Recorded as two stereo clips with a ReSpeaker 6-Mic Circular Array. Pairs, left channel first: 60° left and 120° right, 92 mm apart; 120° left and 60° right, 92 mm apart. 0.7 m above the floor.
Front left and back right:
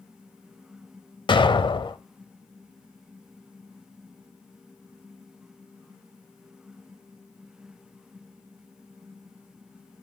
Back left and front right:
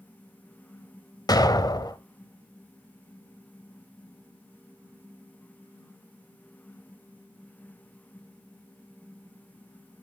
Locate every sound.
1.3 s an explosion: 80° left, 0.8 m